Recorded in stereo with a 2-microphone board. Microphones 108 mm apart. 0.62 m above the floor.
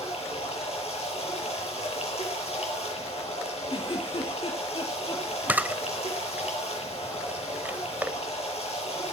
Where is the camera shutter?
15° right (ahead or behind), 0.7 m.